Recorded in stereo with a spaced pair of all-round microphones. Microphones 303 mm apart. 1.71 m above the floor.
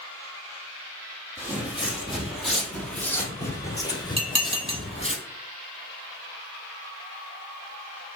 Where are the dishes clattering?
20° right (ahead or behind), 0.9 m.